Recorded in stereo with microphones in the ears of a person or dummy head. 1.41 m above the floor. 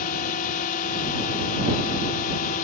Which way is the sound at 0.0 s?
45° left (ahead or behind).